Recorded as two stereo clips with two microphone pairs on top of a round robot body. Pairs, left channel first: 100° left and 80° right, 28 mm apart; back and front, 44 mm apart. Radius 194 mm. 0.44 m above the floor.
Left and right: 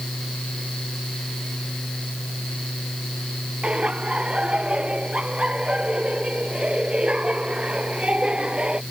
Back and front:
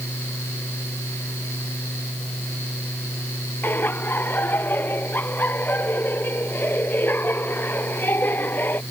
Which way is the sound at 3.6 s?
135° right.